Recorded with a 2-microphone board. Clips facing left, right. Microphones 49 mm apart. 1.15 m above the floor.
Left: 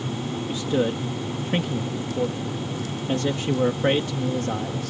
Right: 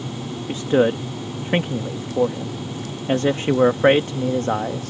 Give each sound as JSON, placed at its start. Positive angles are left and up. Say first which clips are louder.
{"t": 0.5, "sound": "a man speaking", "louder": "right 7 dB", "side_deg": -45}